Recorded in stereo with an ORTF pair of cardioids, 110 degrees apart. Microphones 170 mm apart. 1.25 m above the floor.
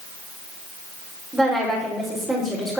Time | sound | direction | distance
1.3 | a woman speaking | 5° right | 5 m